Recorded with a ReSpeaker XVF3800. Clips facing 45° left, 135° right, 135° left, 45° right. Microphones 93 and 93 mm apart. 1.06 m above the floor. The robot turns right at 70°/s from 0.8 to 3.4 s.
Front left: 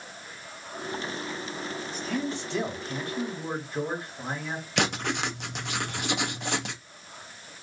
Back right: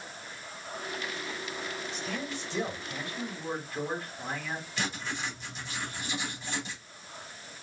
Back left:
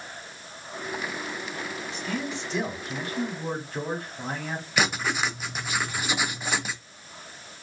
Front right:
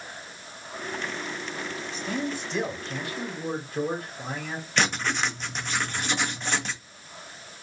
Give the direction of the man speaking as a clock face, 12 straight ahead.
12 o'clock.